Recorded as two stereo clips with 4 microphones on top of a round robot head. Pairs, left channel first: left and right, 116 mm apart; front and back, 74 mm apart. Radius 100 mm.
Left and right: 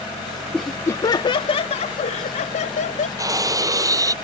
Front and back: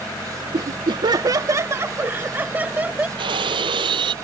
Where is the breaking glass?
150° right.